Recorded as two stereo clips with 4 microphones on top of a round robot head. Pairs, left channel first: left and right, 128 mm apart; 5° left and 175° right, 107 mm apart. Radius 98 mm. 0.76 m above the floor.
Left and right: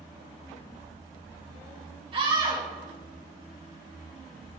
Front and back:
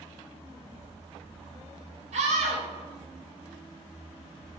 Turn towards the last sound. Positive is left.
turn(degrees=-145)